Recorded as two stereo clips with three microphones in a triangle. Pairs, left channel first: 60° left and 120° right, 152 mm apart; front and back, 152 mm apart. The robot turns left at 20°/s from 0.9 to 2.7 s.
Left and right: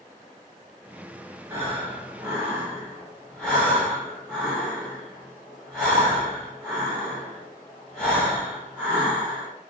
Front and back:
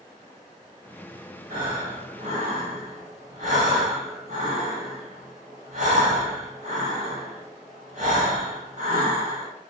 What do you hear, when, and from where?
1.5 s breathing: 170° left, 1.1 m; by 9.5 s 150° left, 1.1 m